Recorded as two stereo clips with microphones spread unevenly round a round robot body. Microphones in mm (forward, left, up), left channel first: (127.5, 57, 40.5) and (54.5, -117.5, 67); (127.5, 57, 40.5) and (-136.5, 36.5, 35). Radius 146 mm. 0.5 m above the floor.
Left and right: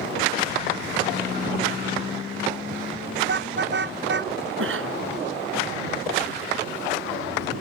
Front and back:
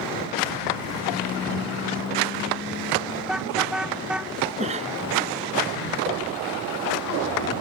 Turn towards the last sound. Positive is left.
turn(degrees=-105)